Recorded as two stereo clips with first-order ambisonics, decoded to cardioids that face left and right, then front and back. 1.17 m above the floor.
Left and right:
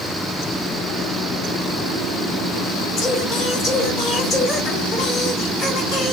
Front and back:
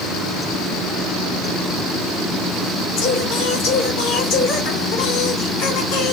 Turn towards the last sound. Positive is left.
turn(degrees=30)